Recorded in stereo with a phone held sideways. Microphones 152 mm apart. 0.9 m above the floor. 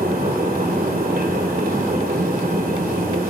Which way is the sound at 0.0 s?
85° right.